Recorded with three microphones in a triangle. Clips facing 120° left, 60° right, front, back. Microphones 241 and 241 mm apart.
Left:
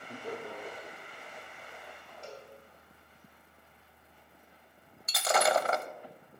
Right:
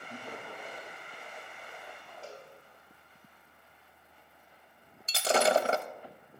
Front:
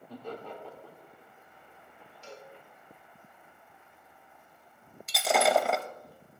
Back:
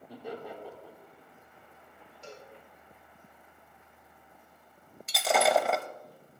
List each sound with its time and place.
0.1 s laughter: 100° left, 2.5 m
2.2 s a cowbell: 145° right, 4 m
5.1 s breaking glass: 90° right, 0.6 m